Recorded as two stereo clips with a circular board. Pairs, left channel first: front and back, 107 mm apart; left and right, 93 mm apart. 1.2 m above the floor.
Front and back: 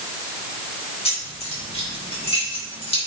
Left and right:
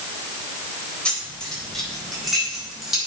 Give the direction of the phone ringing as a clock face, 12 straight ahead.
No phone ringing in this recording.